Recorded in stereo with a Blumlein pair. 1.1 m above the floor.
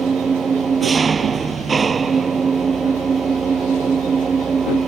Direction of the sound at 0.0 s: 20° right.